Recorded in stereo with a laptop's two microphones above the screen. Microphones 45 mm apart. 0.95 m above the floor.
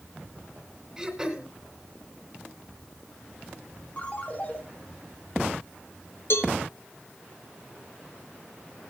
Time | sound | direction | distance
1.0 | throat clearing | 20° right (ahead or behind) | 2.5 m
4.0 | a ringtone | 35° left (ahead or behind) | 3 m
6.3 | a cowbell | 65° left (ahead or behind) | 1.4 m